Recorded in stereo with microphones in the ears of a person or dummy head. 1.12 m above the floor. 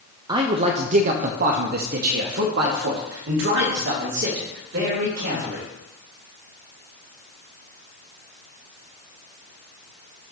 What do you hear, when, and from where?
0.3 s a man speaking: 20° right (ahead or behind), 0.6 m; by 5.7 s 70° right (ahead or behind), 3.5 m